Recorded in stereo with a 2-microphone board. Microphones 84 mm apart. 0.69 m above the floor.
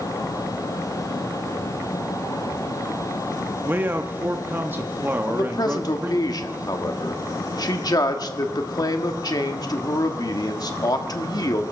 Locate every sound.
3.6 s a man speaking: 25° right (ahead or behind), 0.9 m
5.3 s a man speaking: 50° left (ahead or behind), 1.4 m